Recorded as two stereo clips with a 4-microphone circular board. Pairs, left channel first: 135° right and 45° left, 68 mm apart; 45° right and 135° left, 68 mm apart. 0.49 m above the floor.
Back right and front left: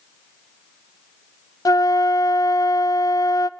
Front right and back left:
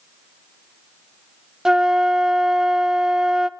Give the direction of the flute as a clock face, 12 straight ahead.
5 o'clock.